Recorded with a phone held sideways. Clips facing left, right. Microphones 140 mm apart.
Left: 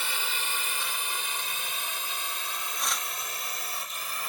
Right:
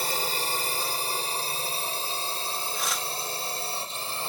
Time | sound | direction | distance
0.0 | a drone | 40° right (ahead or behind) | ?
2.7 | tearing paper | centre (ahead or behind) | ?